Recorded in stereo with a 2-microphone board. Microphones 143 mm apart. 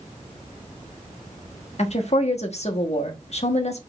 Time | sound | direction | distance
1.8 | a woman speaking | 55° left (ahead or behind) | 0.9 m